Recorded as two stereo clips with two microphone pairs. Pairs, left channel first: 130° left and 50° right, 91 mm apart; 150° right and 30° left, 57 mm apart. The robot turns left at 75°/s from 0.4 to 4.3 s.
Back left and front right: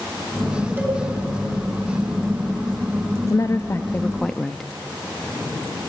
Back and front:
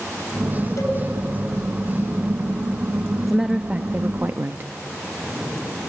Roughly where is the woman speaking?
Behind left.